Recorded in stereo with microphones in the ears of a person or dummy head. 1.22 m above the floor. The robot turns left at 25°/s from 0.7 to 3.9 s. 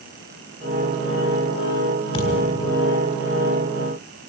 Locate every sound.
2.1 s a thud: 20° left (ahead or behind), 4 m; by 2.9 s 40° left (ahead or behind), 4 m